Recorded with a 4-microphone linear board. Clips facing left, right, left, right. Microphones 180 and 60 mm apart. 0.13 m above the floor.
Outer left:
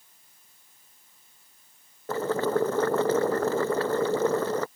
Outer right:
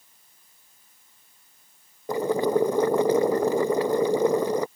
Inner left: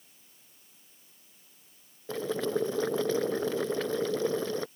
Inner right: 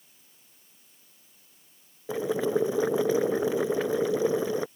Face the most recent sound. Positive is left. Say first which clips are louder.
# outer right 3 dB, inner right 4 dB
turn(degrees=-15)  # may be behind; listen again after turning